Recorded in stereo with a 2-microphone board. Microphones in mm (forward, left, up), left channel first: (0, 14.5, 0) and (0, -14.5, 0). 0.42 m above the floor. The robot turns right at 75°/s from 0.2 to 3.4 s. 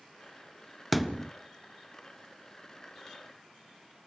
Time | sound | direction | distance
0.9 | a thud | centre (ahead or behind) | 0.6 m